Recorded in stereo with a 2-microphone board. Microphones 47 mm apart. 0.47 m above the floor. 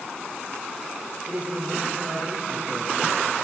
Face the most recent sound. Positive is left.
turn(degrees=-25)  # may be behind; listen again after turning